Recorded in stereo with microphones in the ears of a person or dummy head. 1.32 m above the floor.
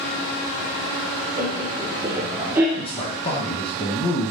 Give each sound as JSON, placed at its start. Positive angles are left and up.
{"t": 1.4, "sound": "laughter", "side_deg": -15, "distance_m": 1.3}
{"t": 2.8, "sound": "a man speaking", "side_deg": 30, "distance_m": 1.4}